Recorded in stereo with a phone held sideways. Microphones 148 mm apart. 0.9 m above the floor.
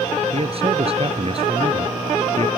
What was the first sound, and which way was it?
A man speaking, 40° right (ahead or behind).